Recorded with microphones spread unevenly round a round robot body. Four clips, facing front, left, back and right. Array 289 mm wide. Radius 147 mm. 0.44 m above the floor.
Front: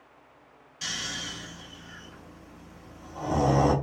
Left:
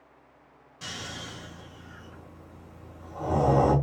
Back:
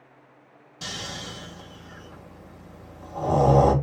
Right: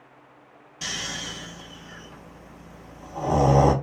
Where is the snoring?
150° right, 3 m.